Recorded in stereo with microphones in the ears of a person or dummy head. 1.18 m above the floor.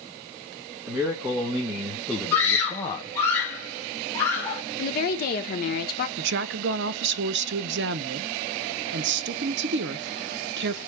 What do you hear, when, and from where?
0.9 s a man speaking: 15° right (ahead or behind), 1.8 m; by 3.2 s 30° left (ahead or behind), 0.6 m
2.3 s a scream: 15° left (ahead or behind), 1.3 m
4.8 s a woman speaking: 60° left (ahead or behind), 1.0 m
6.2 s a woman speaking: 60° right (ahead or behind), 0.6 m